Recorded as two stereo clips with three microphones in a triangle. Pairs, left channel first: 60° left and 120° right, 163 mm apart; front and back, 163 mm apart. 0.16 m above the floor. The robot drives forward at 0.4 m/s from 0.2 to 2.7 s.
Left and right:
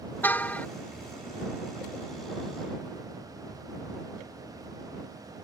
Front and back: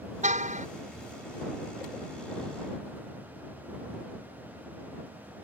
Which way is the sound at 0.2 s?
140° left.